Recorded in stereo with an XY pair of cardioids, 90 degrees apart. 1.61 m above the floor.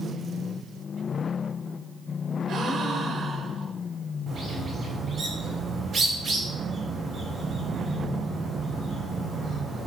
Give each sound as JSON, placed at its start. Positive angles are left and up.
{"t": 2.5, "sound": "a gasp", "azimuth_deg": -70, "distance_m": 1.4}
{"t": 4.3, "sound": "a bird", "azimuth_deg": -60, "distance_m": 4.5}